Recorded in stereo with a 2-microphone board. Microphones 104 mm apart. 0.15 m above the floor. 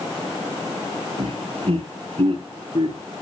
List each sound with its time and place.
1.2 s laughter: 65° right (ahead or behind), 4 m; by 3.0 s 60° right (ahead or behind), 3 m